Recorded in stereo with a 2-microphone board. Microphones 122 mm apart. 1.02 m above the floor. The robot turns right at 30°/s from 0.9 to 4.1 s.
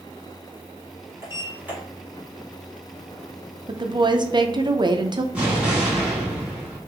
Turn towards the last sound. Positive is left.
turn(degrees=-10)  # may be behind; listen again after turning